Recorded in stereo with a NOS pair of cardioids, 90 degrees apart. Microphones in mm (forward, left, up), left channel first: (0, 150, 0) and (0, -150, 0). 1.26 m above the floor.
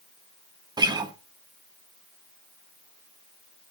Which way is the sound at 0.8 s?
15° right.